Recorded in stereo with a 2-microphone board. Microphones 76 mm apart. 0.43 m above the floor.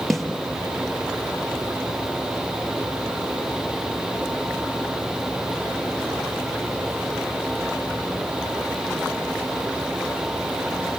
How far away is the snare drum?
About 5 m.